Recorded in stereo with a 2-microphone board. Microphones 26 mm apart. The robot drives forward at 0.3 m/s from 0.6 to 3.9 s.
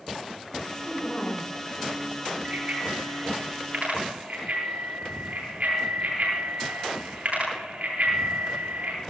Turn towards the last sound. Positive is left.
turn(degrees=-70)  # may be behind; listen again after turning